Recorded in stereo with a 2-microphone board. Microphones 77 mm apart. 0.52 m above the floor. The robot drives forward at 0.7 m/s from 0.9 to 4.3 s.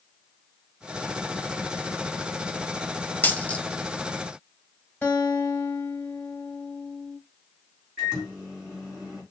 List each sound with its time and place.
3.2 s a dropped coin: 25° left (ahead or behind), 0.6 m; by 3.6 s 15° left (ahead or behind), 0.9 m
5.0 s a guitar: 20° left (ahead or behind), 2 m
8.0 s a microwave: 5° right (ahead or behind), 4 m